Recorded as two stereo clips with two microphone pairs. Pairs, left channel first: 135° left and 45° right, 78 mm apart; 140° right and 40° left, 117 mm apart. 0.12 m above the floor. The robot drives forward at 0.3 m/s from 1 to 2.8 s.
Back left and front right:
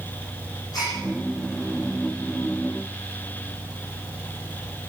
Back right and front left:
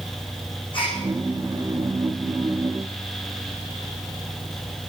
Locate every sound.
0.7 s a gasp: 175° left, 8 m